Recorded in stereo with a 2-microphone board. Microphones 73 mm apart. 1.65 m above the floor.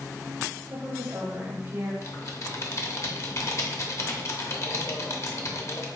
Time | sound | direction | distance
0.7 | a woman speaking | 45° right (ahead or behind) | 1.7 m
2.0 | typing on a keyboard | 50° left (ahead or behind) | 0.7 m